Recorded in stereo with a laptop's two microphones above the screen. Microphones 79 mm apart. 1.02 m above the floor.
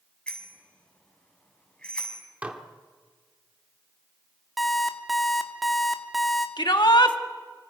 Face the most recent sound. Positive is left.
turn(degrees=75)  # may be behind; listen again after turning